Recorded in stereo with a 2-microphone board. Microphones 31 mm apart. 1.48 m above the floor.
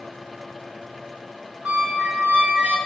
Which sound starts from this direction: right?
A squeak, at 1.6 s.